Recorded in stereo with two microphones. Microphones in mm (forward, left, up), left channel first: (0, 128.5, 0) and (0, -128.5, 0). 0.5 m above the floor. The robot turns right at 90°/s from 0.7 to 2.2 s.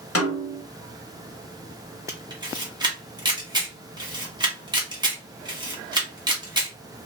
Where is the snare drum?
60° left (ahead or behind), 1.0 m.